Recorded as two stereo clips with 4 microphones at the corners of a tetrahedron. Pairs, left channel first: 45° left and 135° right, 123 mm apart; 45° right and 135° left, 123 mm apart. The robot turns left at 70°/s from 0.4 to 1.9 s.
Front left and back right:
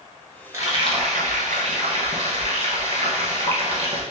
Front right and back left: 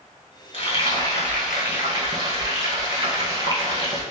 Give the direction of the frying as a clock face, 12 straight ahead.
2 o'clock.